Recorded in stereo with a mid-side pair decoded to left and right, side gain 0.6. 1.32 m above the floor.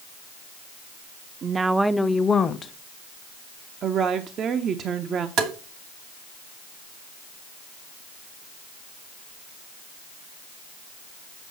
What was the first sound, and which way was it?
A woman speaking, 45° right.